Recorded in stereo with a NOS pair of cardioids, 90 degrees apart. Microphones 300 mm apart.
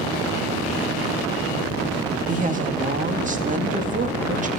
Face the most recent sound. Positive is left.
turn(degrees=-25)